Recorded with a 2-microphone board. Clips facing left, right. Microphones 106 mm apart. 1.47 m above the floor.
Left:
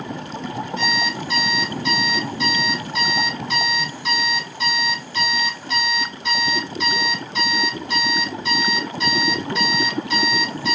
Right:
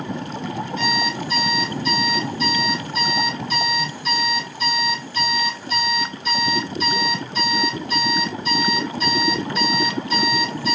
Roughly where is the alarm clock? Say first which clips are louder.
Right 1 dB; left.